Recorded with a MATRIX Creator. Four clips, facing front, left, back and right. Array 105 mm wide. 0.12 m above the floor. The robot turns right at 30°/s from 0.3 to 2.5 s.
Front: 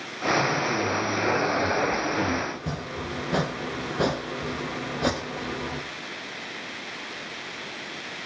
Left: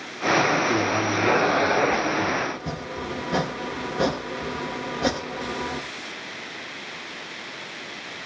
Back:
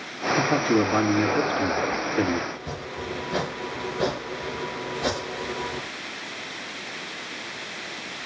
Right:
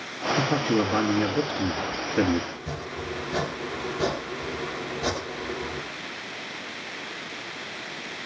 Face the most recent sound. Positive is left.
turn(degrees=50)